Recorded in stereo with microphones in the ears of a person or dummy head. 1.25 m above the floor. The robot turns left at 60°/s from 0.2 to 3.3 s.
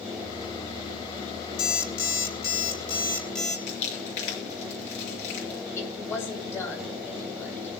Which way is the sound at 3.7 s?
40° left (ahead or behind).